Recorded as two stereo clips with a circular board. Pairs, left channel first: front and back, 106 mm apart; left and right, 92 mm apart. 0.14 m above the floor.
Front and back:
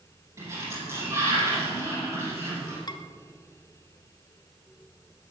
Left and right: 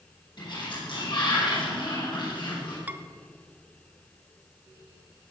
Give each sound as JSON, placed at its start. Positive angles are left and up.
{"t": 0.4, "sound": "a sliding door", "azimuth_deg": 115, "distance_m": 6.5}
{"t": 2.9, "sound": "dishes clattering", "azimuth_deg": -25, "distance_m": 1.1}